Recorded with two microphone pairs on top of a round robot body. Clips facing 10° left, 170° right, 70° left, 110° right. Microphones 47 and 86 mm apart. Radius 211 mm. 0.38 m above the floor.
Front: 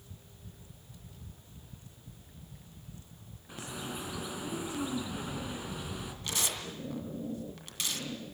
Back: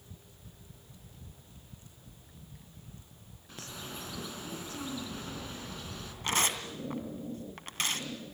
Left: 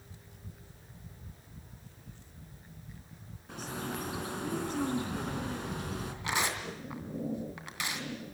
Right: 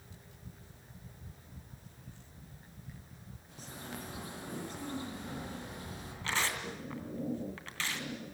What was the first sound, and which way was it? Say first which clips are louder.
A bird: front 4 dB, left 8 dB; 85° left.